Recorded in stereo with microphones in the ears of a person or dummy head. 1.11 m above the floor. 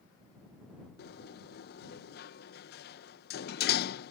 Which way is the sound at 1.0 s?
50° left (ahead or behind).